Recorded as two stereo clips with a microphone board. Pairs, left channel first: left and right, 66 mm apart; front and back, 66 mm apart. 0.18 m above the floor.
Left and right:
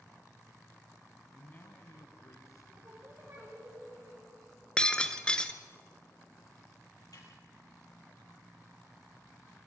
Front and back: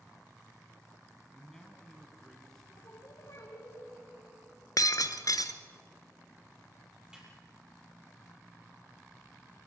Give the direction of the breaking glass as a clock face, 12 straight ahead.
12 o'clock.